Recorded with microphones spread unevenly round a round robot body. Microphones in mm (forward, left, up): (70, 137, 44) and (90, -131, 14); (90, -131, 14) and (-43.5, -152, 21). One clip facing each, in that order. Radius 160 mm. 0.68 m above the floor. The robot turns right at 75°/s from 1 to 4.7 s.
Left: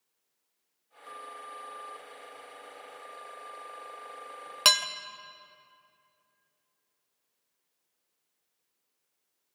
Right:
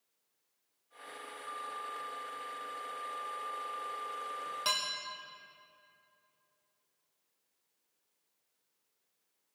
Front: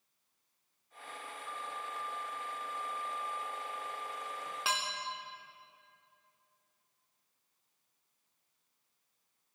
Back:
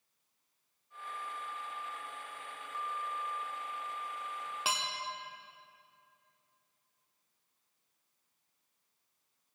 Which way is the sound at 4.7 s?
105° left.